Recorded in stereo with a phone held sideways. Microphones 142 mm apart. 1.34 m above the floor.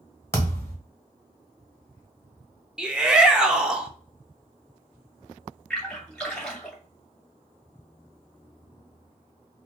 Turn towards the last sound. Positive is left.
turn(degrees=5)  # may be behind; listen again after turning